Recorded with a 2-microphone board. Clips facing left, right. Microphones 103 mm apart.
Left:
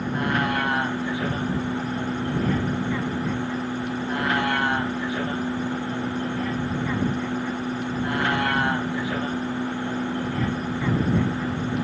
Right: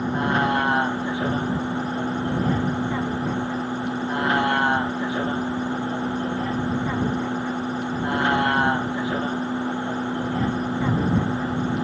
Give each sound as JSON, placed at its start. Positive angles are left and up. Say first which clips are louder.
{"t": 0.0, "sound": "a vehicle", "louder": "right 2 dB", "side_deg": -25}